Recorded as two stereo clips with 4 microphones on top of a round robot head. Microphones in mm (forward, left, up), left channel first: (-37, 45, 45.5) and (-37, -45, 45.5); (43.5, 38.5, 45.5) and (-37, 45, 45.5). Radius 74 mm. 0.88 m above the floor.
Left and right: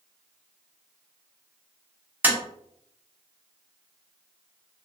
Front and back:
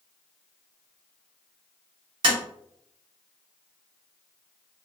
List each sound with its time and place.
2.2 s tapping: 160° right, 0.9 m